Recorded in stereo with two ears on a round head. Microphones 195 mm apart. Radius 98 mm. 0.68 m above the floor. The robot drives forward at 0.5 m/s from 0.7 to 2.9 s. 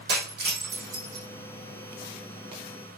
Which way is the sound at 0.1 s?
50° right (ahead or behind).